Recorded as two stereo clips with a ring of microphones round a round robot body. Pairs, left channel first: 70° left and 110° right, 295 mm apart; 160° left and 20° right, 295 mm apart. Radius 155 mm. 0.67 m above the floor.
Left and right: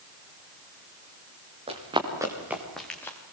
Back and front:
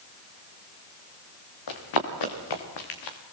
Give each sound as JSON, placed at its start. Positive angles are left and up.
{"t": 1.7, "sound": "running footsteps", "azimuth_deg": 175, "distance_m": 5.0}